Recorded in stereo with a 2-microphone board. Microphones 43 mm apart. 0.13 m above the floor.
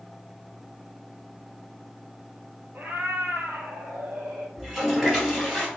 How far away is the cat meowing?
About 0.9 m.